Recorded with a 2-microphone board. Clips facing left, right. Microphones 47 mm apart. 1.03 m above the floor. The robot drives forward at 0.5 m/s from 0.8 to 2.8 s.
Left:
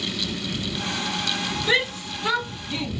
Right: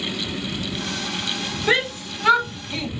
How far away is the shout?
About 1.2 m.